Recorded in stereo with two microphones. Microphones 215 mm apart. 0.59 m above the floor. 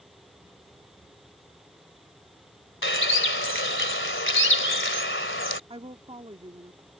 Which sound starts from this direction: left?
A bird, at 2.8 s.